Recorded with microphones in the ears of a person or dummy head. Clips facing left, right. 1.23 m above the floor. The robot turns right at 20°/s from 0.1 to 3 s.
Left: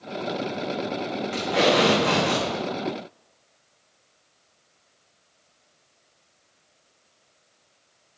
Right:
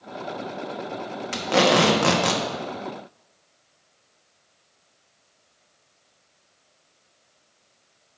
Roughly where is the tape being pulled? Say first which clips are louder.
Right 2 dB; right.